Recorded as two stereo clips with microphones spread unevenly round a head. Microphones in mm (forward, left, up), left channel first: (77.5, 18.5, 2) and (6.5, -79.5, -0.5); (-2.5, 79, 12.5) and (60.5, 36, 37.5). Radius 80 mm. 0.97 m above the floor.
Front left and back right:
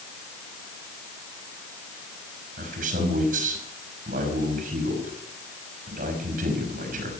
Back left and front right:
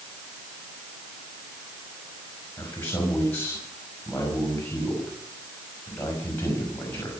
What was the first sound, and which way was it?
A man speaking, 140° right.